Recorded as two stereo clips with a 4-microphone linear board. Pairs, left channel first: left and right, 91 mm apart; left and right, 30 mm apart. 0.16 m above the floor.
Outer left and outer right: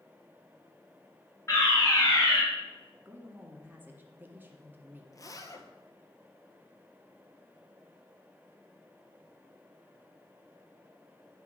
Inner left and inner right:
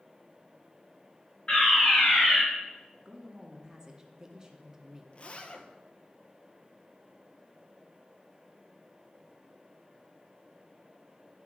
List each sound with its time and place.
1.5 s a fire alarm: 30° left (ahead or behind), 3.5 m
3.0 s a man speaking: 20° right (ahead or behind), 1.3 m
5.1 s a zipper: 40° left (ahead or behind), 0.9 m